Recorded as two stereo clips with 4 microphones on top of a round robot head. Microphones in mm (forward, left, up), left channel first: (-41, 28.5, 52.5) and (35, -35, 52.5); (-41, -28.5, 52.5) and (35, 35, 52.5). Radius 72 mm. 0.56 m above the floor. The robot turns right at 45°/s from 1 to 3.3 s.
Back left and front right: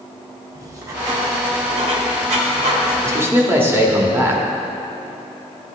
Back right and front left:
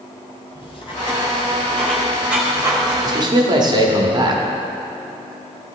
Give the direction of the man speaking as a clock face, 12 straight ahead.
12 o'clock.